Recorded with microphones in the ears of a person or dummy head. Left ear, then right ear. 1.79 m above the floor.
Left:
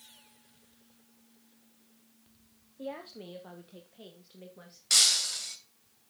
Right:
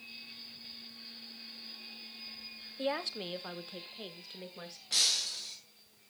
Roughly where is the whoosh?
I don't hear a whoosh.